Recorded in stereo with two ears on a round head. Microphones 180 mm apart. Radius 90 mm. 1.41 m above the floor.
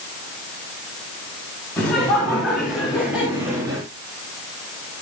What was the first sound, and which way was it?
Laughter, 10° left (ahead or behind).